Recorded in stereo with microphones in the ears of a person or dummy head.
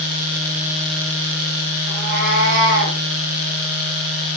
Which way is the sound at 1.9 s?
55° right (ahead or behind).